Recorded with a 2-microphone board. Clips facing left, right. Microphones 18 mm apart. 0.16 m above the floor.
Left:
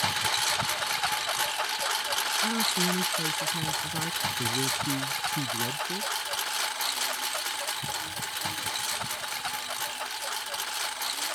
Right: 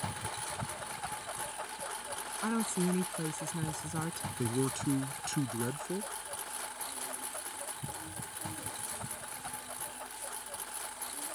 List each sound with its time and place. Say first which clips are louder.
0.0 s a lawn mower: left 13 dB; 85° left; by 11.4 s 65° left (ahead or behind)
2.4 s a woman speaking: left 1 dB; 5° left (ahead or behind)
4.4 s a man speaking: left 1 dB; 30° right (ahead or behind)